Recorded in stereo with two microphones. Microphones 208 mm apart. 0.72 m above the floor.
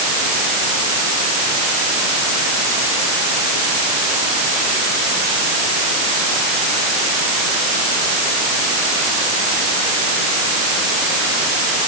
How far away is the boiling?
No boiling in this recording.